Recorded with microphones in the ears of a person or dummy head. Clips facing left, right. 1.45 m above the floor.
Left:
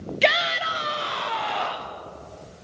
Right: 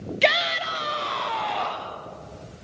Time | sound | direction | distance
0.2 | a shout | 5° left (ahead or behind) | 0.7 m